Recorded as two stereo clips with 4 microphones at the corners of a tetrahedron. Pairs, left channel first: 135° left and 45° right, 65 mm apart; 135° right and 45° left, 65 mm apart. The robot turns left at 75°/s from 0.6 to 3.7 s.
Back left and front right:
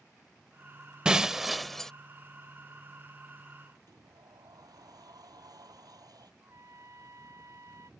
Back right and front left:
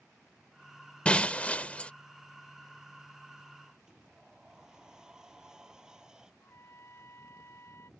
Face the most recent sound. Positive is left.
turn(degrees=-85)